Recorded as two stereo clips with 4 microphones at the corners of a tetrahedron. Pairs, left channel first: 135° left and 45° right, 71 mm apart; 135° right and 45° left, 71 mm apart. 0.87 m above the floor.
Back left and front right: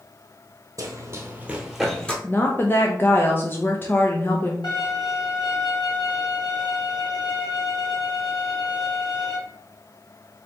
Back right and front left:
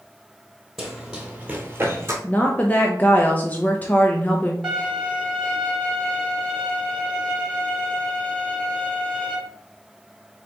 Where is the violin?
130° left, 2.5 m.